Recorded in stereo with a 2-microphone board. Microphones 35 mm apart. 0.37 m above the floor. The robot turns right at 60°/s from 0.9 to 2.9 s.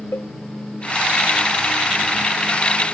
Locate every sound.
0.1 s a cowbell: 80° left